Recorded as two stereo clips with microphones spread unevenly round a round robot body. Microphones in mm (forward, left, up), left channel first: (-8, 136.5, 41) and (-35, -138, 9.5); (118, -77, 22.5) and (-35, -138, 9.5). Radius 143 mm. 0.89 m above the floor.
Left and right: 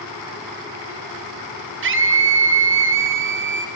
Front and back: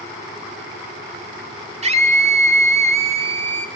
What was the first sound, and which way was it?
A scream, 125° right.